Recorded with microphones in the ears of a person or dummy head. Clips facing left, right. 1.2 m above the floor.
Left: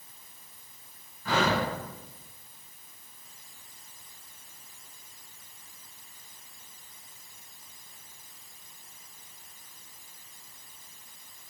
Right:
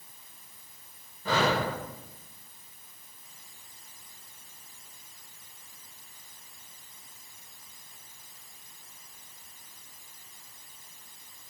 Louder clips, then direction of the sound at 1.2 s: Even; 35° right (ahead or behind).